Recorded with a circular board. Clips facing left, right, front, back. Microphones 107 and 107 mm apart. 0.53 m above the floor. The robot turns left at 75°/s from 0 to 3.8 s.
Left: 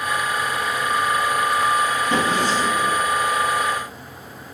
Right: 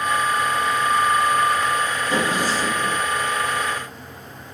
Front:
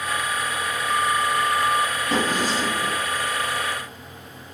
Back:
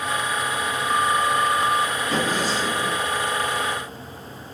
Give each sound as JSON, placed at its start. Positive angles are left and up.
{"t": 2.1, "sound": "a drawer", "azimuth_deg": 55, "distance_m": 1.8}